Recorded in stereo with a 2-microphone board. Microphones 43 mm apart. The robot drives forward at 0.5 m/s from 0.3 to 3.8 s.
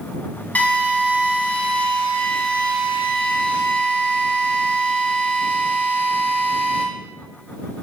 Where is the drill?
35° left (ahead or behind), 1.9 m; by 6.8 s 25° left (ahead or behind), 2.5 m.